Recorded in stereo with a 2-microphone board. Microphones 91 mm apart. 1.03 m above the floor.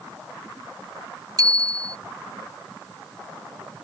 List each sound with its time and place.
1.4 s a bicycle bell: 40° right (ahead or behind)